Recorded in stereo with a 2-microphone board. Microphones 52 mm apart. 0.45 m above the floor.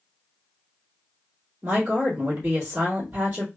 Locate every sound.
1.6 s a woman speaking: 45° right (ahead or behind), 1.8 m